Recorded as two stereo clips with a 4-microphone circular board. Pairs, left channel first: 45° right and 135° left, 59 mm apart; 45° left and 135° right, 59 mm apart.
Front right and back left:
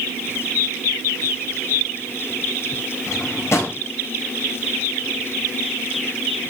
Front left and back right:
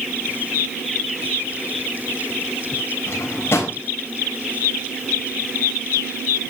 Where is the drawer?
5° right, 4.5 m.